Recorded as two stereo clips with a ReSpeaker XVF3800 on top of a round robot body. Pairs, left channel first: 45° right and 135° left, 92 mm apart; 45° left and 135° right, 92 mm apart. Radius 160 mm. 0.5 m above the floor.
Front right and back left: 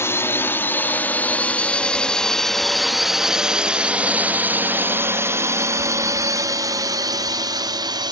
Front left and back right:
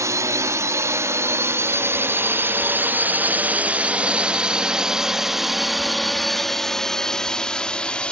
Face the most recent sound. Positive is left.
turn(degrees=120)